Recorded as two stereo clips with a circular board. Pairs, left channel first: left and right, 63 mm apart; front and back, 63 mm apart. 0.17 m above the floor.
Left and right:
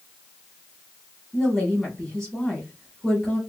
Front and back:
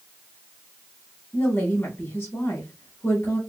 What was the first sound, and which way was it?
A woman speaking, 15° left.